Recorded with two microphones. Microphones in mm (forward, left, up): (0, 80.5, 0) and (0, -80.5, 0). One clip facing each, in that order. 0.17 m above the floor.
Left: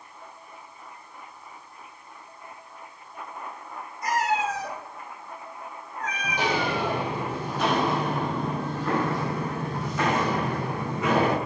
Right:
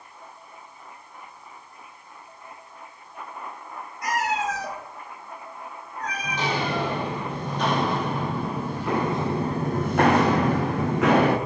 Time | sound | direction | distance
4.0 | a cat meowing | 70° right (ahead or behind) | 1.6 m
6.2 | footsteps | 10° left (ahead or behind) | 2.0 m